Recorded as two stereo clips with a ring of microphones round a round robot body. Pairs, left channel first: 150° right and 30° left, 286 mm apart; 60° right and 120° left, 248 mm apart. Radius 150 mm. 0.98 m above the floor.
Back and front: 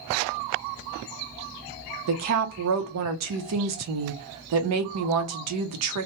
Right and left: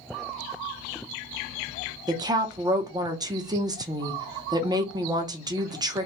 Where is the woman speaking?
45° left, 0.7 m.